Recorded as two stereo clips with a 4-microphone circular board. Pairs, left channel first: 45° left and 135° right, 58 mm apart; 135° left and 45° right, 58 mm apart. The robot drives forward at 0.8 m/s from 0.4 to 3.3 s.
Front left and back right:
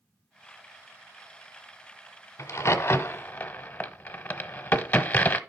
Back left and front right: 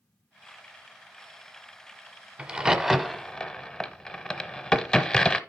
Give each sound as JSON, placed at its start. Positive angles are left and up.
{"t": 2.4, "sound": "a crack", "azimuth_deg": 20, "distance_m": 1.1}